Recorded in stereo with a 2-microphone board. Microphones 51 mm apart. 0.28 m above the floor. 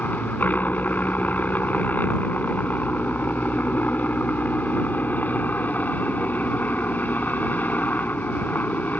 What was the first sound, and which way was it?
A helicopter, 35° left (ahead or behind).